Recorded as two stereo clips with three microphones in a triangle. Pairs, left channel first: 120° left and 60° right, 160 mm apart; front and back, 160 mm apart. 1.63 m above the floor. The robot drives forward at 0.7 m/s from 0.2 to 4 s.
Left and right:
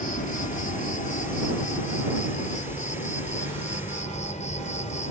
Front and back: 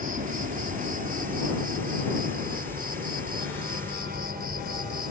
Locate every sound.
0.0 s an insect: 150° left; by 5.1 s 160° left